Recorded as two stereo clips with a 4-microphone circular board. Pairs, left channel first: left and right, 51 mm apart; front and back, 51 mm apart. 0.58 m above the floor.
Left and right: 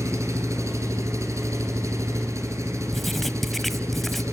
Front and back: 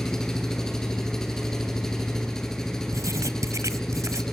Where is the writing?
175° left, 1.0 m.